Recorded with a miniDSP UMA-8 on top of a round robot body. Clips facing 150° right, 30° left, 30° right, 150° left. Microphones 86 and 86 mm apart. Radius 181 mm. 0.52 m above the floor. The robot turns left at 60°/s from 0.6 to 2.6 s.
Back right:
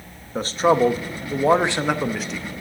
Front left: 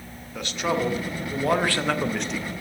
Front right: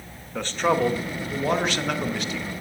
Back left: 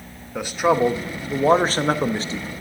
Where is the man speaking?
140° right, 1.1 m; by 2.5 s 110° left, 1.1 m.